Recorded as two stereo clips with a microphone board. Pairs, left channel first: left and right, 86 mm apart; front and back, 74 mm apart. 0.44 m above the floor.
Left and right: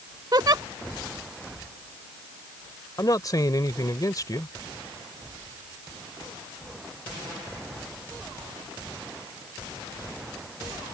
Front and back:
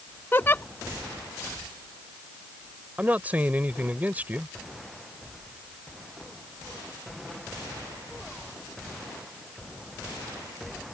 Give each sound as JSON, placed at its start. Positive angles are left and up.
{"t": 0.3, "sound": "a giggle", "azimuth_deg": -55}
{"t": 3.0, "sound": "a man speaking", "azimuth_deg": 120}